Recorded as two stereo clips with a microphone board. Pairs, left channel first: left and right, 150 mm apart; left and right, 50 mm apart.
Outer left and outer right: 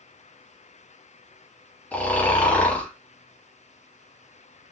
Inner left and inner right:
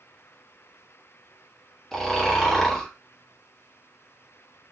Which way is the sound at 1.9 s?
10° left (ahead or behind).